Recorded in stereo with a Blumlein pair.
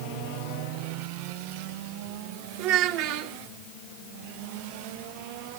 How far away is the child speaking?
About 2.5 m.